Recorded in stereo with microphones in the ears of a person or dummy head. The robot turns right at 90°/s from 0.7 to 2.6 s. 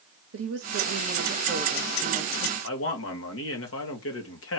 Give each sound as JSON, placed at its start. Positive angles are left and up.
{"t": 0.3, "sound": "a woman speaking", "azimuth_deg": -100, "distance_m": 1.4}
{"t": 2.6, "sound": "a man speaking", "side_deg": 70, "distance_m": 2.0}